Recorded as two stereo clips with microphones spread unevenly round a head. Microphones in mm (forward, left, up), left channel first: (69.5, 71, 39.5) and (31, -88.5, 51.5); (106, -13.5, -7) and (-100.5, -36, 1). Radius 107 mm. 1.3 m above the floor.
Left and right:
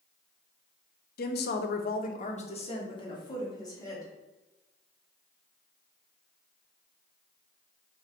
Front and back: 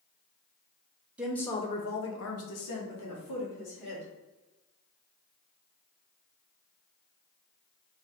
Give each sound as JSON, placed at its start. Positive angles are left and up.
{"t": 1.2, "sound": "a woman speaking", "azimuth_deg": 100, "distance_m": 0.6}